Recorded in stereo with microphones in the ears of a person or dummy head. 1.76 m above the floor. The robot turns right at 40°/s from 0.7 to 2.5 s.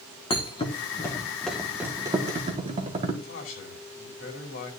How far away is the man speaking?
About 5 m.